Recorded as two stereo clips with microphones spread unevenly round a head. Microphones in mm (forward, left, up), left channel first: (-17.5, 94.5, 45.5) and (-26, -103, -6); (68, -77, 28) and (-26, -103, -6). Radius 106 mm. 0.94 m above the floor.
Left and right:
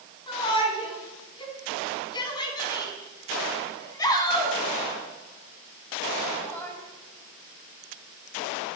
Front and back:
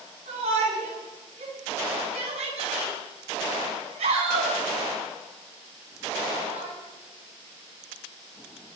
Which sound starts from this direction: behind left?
A shout, at 0.3 s.